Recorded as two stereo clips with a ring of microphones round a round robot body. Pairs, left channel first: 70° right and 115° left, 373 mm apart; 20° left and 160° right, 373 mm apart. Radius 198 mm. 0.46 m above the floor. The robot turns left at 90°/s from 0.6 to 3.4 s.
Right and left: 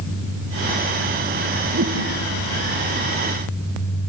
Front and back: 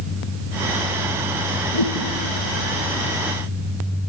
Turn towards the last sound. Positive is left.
turn(degrees=-100)